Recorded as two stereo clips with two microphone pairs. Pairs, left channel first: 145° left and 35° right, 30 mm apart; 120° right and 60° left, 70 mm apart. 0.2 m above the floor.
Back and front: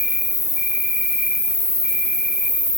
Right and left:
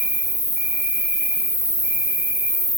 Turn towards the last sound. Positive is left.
turn(degrees=-85)